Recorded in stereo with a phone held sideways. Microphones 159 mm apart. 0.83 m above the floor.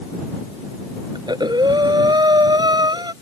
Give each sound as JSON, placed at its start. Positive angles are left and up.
{"t": 1.1, "sound": "breathing", "side_deg": -25}